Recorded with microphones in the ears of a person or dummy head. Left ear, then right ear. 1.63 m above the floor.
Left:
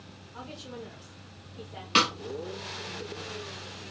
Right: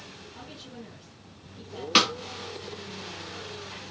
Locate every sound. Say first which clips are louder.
0.3 s a woman speaking: left 7 dB; 45° left (ahead or behind), 2 m
1.9 s a snare drum: right 2 dB; 15° right (ahead or behind), 0.6 m